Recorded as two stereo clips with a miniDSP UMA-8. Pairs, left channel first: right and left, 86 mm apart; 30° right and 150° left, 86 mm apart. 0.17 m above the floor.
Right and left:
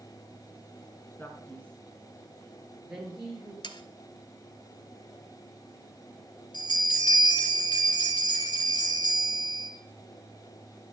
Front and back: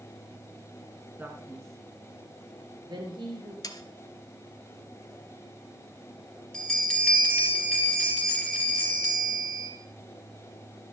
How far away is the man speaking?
About 2.0 m.